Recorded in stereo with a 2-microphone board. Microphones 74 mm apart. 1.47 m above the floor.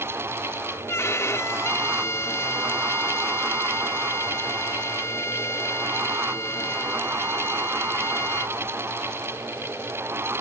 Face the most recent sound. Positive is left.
turn(degrees=40)  # may be behind; listen again after turning